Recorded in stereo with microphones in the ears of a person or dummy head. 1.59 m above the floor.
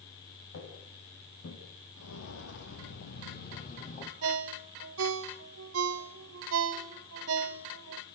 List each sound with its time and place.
0.5 s footsteps: 60° left (ahead or behind), 9 m
2.0 s footsteps: 60° left (ahead or behind), 3 m; by 4.1 s 35° left (ahead or behind), 3 m
4.2 s a ringtone: 70° right (ahead or behind), 1.5 m